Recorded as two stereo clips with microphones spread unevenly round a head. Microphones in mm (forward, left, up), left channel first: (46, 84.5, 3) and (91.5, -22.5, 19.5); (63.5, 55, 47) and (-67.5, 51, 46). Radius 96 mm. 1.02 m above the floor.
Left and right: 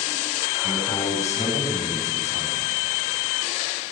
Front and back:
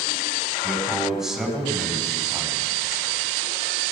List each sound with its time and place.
0.6 s a man speaking: 95° left, 9.5 m